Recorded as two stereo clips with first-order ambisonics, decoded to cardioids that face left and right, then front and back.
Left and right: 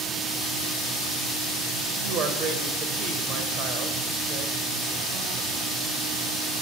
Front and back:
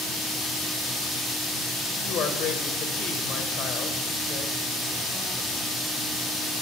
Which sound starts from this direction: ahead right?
A woman speaking, at 2.0 s.